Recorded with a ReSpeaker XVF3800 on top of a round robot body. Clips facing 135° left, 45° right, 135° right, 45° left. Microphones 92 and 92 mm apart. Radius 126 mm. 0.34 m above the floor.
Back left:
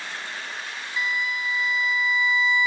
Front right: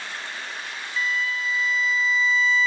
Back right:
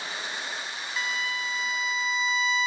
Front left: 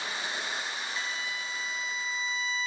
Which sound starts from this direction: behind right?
A violin, at 1.0 s.